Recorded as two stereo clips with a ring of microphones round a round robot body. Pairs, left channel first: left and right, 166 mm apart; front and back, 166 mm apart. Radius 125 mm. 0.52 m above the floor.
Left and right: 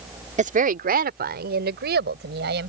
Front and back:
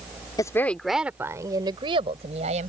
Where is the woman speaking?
65° right; by 2.7 s 120° right.